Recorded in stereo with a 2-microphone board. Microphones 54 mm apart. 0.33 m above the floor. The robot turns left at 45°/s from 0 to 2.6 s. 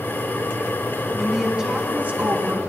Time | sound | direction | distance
1.1 | a woman speaking | straight ahead | 3 m